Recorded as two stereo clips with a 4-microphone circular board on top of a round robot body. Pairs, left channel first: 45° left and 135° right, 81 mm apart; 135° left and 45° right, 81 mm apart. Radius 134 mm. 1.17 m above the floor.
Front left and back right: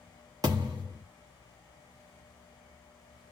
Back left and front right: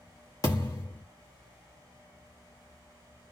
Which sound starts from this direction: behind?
A thud, at 0.4 s.